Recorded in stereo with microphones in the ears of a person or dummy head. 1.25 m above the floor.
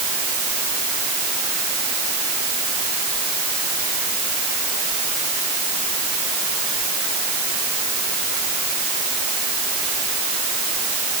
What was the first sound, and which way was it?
Only background noise.